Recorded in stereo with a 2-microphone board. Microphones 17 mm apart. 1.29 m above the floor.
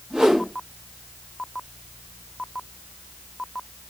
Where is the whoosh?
75° right (ahead or behind), 0.9 m.